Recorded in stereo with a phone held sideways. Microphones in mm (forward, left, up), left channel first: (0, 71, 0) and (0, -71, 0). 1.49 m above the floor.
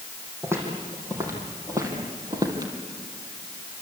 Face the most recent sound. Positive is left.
turn(degrees=-30)  # may be behind; listen again after turning